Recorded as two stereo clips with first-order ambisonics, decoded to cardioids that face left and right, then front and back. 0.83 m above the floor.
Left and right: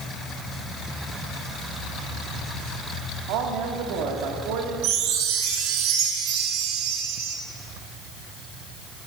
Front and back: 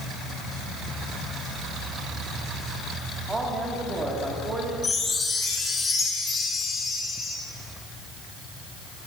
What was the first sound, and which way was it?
A man speaking, 100° right.